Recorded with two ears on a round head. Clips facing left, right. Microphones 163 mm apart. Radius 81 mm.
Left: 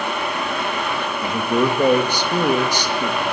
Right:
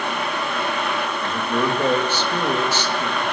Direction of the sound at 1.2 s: 15° left (ahead or behind).